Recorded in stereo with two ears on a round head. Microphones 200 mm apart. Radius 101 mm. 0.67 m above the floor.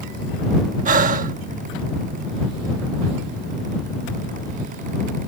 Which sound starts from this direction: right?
Breathing, at 0.8 s.